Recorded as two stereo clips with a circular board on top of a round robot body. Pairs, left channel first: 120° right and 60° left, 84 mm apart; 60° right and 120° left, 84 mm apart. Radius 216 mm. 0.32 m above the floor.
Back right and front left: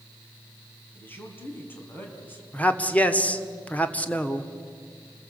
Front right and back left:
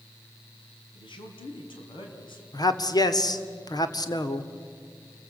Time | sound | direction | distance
0.9 | a man speaking | 55° right | 4 m
2.5 | a man speaking | 50° right | 1.7 m